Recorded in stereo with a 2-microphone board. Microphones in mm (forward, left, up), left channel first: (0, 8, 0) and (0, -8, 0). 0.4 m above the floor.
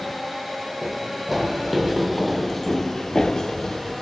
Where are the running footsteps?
10° right (ahead or behind), 1.3 m; by 4.0 s 45° left (ahead or behind), 0.7 m.